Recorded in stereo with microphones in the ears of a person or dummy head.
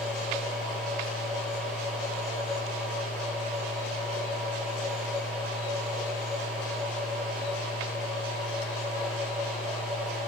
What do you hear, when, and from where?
0.0 s a machine running: 10° left (ahead or behind), 9.5 m